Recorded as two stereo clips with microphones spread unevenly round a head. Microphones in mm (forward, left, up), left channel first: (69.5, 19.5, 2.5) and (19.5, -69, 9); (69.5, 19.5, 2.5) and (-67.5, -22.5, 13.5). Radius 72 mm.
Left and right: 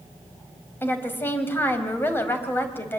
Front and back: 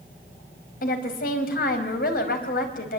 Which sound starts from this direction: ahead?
A woman speaking, at 0.8 s.